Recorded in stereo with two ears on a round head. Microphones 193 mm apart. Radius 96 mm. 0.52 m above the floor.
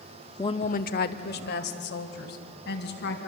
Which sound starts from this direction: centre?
A woman speaking, at 0.4 s.